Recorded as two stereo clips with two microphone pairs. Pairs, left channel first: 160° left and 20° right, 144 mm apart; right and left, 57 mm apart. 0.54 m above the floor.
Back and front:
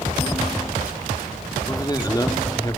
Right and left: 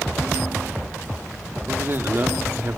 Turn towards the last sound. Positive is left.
turn(degrees=115)